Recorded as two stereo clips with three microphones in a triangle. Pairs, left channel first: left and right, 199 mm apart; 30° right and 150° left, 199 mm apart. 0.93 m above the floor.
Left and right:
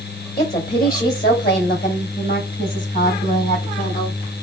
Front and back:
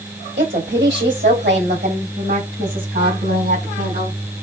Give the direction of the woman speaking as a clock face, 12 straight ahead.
8 o'clock.